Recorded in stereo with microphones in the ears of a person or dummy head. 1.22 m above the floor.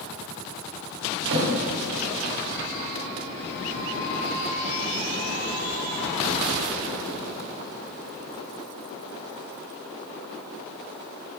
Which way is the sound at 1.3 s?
70° right (ahead or behind).